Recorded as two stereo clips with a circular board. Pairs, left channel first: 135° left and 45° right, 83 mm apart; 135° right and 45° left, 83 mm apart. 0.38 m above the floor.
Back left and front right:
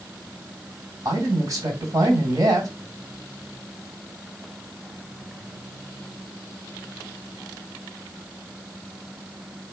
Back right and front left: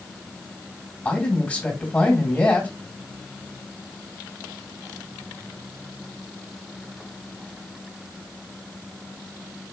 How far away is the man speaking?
About 1.6 m.